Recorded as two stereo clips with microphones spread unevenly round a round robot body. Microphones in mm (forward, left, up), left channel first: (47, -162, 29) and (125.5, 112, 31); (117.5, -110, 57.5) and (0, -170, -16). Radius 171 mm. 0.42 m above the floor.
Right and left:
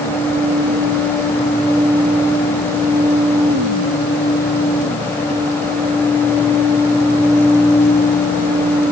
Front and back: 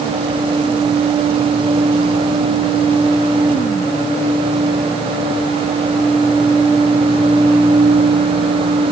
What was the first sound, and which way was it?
Only background noise.